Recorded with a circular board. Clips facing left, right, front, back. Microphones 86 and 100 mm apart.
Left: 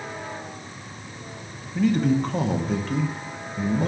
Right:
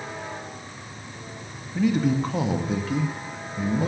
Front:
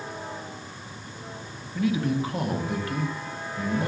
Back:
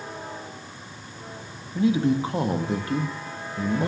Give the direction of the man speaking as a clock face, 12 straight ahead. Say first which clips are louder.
Left 1 dB, back 4 dB; 6 o'clock.